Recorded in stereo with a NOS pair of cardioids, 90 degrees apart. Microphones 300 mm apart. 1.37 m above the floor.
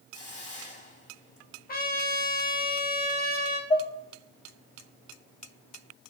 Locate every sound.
0.1 s a hiss: 25° left, 3 m
1.7 s a trumpet: 30° left, 1.5 m
3.7 s dishes clattering: 25° left, 1.9 m